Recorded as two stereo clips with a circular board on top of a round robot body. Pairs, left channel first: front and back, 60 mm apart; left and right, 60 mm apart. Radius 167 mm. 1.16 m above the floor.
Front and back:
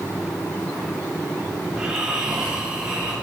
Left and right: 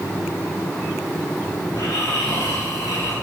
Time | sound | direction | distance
1.7 | snoring | 100° left | 2.5 m